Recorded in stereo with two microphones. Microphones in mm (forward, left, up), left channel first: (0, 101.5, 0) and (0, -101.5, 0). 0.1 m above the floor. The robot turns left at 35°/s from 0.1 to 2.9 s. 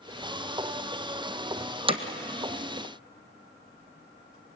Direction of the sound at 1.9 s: 25° right (ahead or behind).